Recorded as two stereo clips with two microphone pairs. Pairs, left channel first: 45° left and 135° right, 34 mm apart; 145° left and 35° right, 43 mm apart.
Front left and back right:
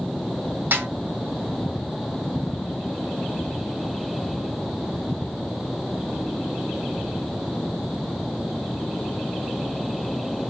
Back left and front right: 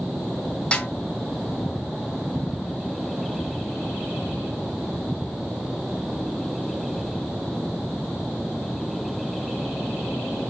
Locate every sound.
0.7 s a snare drum: 155° right, 2.5 m